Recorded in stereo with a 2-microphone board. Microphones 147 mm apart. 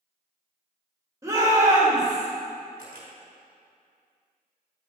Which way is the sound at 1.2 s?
20° right (ahead or behind).